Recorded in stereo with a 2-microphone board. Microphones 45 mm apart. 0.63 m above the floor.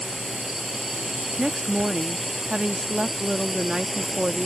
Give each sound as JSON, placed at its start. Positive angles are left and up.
{"t": 0.0, "sound": "a drone", "side_deg": -5}
{"t": 1.4, "sound": "a woman speaking", "side_deg": -20}